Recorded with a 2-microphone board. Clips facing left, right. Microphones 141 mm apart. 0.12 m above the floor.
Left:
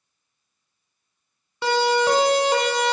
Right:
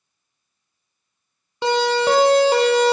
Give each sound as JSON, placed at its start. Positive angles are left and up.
{"t": 1.6, "sound": "a siren", "side_deg": -25, "distance_m": 3.0}